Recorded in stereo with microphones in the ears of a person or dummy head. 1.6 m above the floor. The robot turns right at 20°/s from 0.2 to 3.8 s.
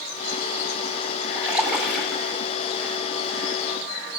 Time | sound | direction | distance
1.4 | a splash | 15° right (ahead or behind) | 8 m